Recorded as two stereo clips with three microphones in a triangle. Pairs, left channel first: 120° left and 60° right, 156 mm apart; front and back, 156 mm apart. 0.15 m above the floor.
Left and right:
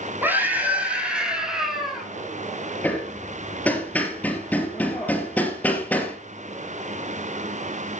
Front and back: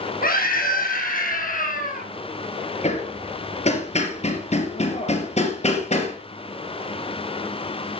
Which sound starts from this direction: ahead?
A scream, at 0.2 s.